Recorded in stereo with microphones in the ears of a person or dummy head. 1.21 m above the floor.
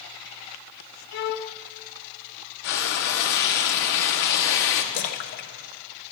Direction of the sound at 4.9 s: 50° left (ahead or behind).